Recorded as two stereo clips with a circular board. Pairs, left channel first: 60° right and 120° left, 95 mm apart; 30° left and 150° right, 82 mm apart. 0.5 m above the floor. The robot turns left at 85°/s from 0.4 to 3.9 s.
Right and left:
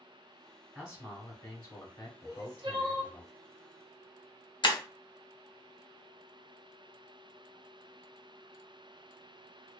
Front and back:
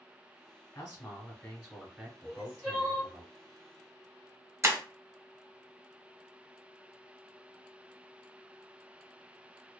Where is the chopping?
I don't hear chopping.